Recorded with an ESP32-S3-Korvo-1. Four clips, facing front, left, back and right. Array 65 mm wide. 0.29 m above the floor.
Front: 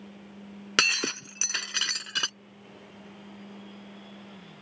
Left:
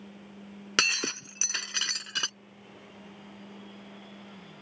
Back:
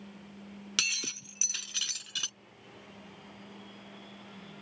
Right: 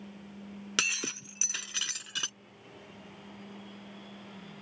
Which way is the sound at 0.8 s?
25° left.